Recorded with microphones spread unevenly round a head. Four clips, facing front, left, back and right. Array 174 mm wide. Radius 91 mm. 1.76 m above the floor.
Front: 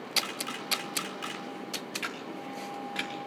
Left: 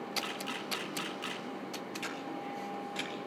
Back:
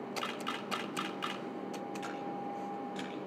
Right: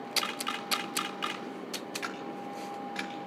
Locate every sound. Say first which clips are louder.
0.2 s a camera shutter: right 3 dB, front 1 dB; 90° right, 3.5 m
2.0 s a camera shutter: right 1 dB, even; 40° right, 5 m